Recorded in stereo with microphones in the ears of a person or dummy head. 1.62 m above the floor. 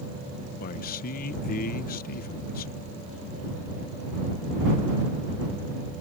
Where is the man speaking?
50° left (ahead or behind).